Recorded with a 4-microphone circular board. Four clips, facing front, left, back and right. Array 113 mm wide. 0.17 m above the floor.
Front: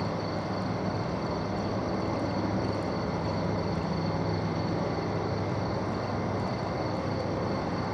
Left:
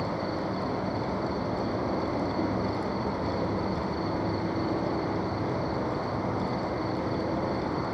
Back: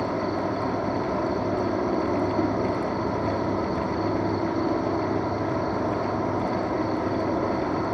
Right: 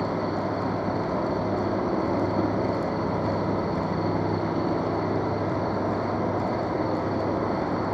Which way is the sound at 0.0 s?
120° right.